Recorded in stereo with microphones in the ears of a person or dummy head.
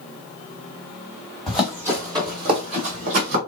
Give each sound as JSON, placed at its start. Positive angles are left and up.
{"t": 1.5, "sound": "running footsteps", "side_deg": 0, "distance_m": 1.6}